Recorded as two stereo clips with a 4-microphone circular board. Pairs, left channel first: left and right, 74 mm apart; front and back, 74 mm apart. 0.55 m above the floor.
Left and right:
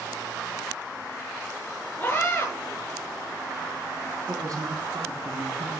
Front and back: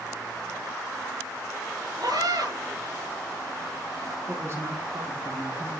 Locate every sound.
2.0 s a scream: 155° left, 9 m
4.3 s a woman speaking: 130° right, 5 m